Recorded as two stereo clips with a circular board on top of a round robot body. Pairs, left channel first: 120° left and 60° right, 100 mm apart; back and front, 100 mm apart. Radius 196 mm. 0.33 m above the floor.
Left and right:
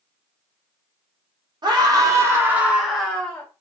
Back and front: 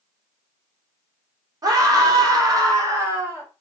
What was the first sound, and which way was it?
A scream, 40° right.